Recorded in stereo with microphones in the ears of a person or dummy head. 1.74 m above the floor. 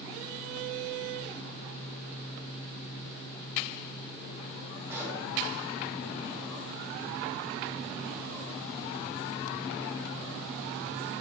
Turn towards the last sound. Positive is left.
turn(degrees=-10)  # may be behind; listen again after turning